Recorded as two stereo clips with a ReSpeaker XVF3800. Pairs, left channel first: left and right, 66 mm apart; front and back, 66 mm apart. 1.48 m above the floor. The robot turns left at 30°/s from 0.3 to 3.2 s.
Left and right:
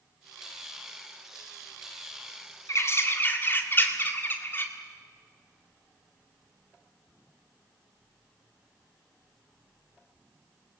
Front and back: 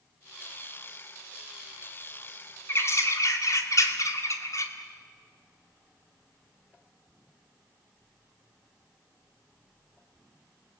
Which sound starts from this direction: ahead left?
A bird, at 2.7 s.